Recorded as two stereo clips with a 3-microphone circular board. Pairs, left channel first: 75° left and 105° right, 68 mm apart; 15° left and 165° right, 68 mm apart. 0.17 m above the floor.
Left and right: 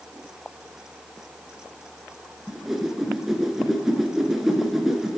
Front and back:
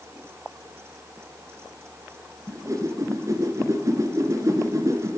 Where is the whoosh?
170° left, 1.4 m.